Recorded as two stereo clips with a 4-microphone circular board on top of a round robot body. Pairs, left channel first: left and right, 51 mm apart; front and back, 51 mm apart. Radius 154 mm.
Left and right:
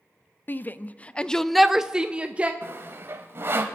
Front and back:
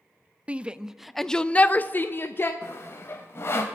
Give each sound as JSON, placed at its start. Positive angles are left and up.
{"t": 0.5, "sound": "a shout", "azimuth_deg": 125, "distance_m": 0.8}
{"t": 2.6, "sound": "sawing", "azimuth_deg": -45, "distance_m": 0.6}